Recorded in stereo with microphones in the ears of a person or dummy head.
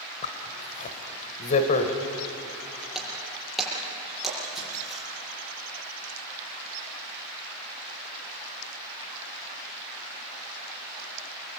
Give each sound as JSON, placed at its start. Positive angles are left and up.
{"t": 0.2, "sound": "a zipper", "side_deg": 30, "distance_m": 1.6}
{"t": 3.0, "sound": "breaking glass", "side_deg": 0, "distance_m": 8.5}